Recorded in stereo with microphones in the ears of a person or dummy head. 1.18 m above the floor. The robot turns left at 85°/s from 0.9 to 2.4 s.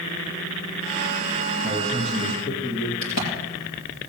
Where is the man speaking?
145° right, 1.6 m; by 2.9 s 150° left, 1.6 m.